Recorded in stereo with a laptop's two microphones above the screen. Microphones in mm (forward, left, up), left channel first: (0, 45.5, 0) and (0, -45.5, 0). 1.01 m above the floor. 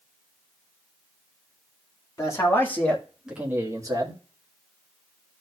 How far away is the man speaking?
About 2 m.